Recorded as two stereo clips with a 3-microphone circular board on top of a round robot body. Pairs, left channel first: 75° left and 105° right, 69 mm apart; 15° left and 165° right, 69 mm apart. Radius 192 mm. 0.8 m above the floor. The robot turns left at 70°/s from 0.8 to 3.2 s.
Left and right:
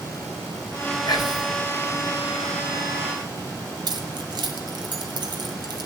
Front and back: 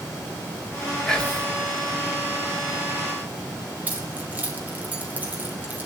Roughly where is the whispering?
Left.